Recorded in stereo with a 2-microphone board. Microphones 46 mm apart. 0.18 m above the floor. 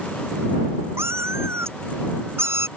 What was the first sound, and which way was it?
A cat meowing, 70° right (ahead or behind).